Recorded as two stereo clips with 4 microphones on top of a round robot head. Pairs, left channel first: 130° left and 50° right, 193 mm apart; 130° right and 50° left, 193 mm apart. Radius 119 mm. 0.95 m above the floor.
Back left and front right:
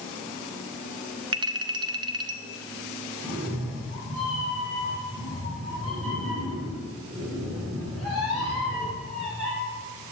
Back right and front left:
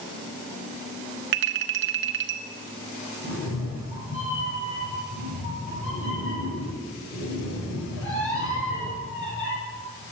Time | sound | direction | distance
1.3 | a clink | 20° left | 0.8 m
3.2 | a cat meowing | 105° right | 6 m